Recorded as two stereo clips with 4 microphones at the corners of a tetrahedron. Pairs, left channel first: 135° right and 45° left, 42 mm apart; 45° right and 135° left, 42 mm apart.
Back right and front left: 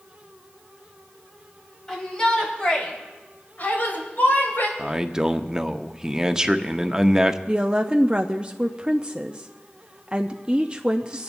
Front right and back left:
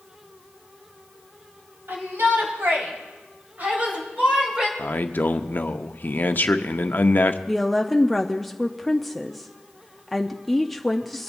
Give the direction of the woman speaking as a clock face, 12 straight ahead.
11 o'clock.